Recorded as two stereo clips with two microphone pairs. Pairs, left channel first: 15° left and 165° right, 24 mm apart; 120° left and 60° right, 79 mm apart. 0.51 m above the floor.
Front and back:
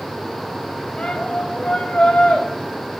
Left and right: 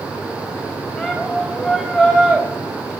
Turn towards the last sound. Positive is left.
turn(degrees=40)